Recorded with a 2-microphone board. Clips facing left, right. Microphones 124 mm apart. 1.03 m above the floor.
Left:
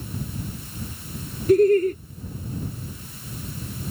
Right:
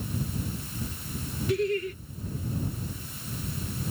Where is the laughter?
40° left (ahead or behind).